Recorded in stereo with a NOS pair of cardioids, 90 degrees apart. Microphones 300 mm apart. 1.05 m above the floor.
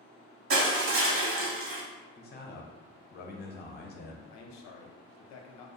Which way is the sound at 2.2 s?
30° left.